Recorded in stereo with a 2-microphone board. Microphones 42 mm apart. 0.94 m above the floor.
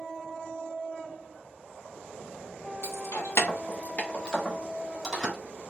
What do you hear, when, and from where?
2.8 s keys jangling: 70° left (ahead or behind), 0.9 m; by 5.3 s centre (ahead or behind), 2.0 m